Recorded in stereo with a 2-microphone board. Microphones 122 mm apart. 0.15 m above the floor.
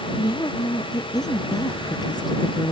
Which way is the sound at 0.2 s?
30° left (ahead or behind).